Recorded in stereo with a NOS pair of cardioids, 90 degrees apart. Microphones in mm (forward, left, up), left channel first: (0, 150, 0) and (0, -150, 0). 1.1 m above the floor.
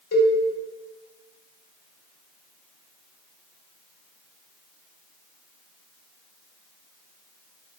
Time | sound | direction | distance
0.1 | a cowbell | 50° left | 1.8 m